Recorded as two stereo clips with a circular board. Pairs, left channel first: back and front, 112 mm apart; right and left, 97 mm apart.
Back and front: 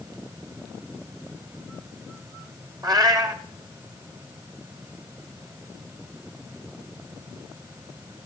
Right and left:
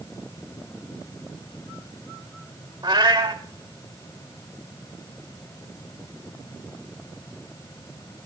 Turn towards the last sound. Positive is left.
turn(degrees=50)